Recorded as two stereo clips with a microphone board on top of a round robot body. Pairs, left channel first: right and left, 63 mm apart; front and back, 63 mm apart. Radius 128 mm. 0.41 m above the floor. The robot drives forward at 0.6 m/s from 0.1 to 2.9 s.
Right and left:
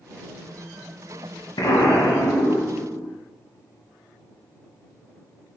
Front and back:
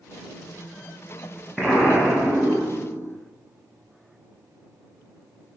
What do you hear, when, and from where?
1.6 s an explosion: 90° right, 0.9 m; by 3.1 s 135° right, 1.2 m